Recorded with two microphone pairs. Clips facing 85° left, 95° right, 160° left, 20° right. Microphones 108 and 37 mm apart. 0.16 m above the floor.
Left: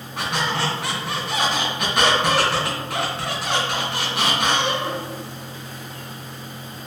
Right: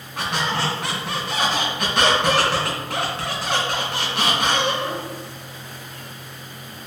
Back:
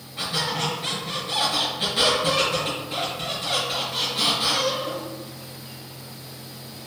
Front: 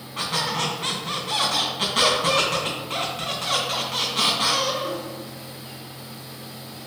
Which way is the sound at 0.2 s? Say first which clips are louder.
Even, front 1 dB; 5° left.